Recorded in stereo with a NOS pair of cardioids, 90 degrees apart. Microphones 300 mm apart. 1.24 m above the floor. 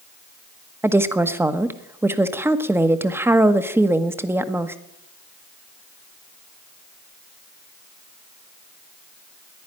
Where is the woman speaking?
5° right, 1.2 m.